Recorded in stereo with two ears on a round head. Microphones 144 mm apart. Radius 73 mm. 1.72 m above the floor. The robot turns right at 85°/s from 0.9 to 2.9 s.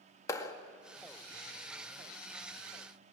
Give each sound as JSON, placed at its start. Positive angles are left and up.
{"t": 0.3, "sound": "a clap", "side_deg": 20, "distance_m": 2.0}